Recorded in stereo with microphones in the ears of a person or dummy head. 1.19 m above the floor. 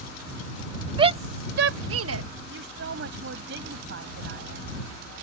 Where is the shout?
20° right (ahead or behind); by 2.2 s 80° right.